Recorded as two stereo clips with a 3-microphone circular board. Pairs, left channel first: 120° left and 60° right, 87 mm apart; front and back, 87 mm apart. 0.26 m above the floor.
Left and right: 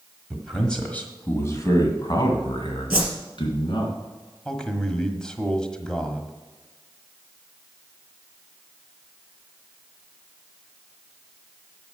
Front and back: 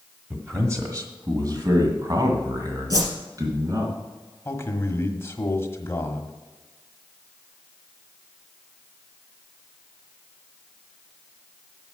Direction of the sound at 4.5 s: 45° left.